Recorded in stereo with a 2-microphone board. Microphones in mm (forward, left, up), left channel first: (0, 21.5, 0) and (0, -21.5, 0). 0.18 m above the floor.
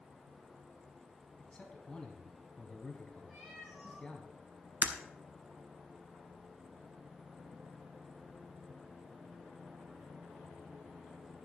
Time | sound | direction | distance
1.4 | a man speaking | 20° left (ahead or behind) | 1.1 m
3.3 | a cat meowing | 20° right (ahead or behind) | 5.5 m
4.8 | breaking glass | 45° right (ahead or behind) | 0.9 m